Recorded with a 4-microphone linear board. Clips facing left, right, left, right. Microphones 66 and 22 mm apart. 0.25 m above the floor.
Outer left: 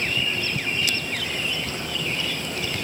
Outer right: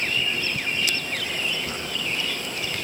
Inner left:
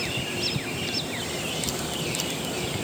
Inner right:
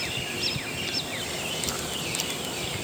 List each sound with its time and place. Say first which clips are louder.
1.7 s a drawer: even, inner left 1 dB; 5° right (ahead or behind), 4.5 m